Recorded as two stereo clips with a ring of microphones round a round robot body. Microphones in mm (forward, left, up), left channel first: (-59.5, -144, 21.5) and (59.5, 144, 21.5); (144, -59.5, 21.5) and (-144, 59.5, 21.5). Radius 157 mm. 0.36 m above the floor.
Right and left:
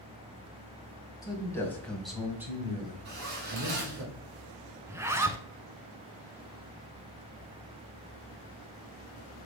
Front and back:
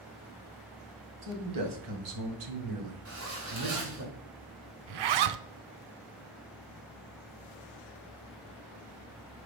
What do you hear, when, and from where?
1.2 s a man speaking: 170° left, 1.9 m; by 4.0 s 115° left, 1.5 m
3.0 s a zipper: 120° left, 2.5 m
4.9 s a zipper: 150° left, 0.6 m